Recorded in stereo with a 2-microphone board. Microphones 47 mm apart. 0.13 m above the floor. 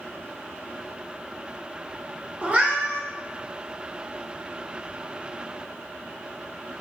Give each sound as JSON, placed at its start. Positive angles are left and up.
{"t": 2.4, "sound": "a cat meowing", "side_deg": -30, "distance_m": 0.6}